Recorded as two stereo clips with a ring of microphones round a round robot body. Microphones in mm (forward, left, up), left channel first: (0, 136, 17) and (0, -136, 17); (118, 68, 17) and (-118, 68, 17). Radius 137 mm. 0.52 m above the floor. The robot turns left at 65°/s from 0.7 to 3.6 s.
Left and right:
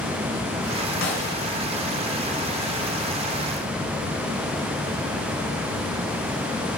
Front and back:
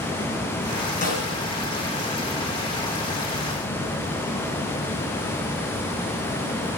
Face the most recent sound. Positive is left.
turn(degrees=-110)